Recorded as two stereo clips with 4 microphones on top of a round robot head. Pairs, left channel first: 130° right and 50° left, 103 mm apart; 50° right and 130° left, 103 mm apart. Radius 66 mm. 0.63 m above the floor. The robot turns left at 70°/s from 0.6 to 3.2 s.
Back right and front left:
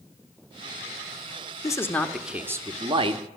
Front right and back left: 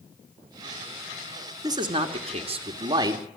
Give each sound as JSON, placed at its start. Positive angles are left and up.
{"t": 1.6, "sound": "a man speaking", "azimuth_deg": 180, "distance_m": 2.0}